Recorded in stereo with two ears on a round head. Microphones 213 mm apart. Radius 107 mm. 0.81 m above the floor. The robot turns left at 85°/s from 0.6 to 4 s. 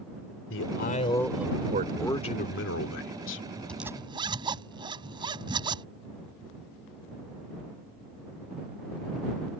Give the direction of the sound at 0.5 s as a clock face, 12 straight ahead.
10 o'clock.